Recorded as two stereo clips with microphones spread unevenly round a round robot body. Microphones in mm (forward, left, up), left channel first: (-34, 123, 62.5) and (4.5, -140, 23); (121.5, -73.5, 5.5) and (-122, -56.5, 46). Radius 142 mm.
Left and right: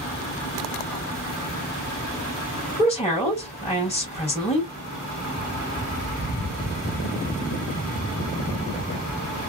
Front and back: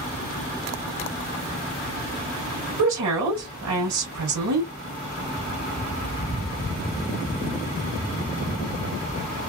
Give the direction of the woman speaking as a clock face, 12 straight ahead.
6 o'clock.